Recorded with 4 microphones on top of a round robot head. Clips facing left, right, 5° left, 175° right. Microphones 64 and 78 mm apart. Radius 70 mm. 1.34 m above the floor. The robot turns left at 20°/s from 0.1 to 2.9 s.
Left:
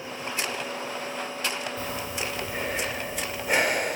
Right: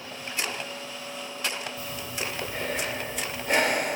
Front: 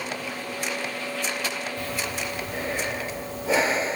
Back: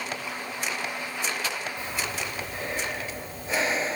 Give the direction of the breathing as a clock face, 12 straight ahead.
11 o'clock.